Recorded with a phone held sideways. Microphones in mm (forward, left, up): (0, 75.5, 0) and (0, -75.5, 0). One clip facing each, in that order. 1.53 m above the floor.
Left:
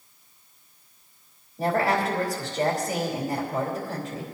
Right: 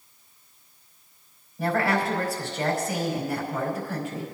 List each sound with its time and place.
1.6 s a woman speaking: 35° left (ahead or behind), 4 m